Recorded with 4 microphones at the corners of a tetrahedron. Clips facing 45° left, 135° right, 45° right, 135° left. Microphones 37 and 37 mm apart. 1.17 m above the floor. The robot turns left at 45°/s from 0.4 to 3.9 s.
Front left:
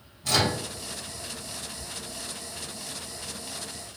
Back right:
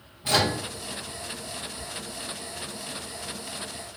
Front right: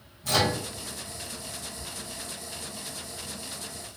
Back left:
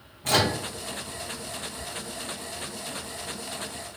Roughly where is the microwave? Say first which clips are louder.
Back right 1 dB, back left 2 dB; behind.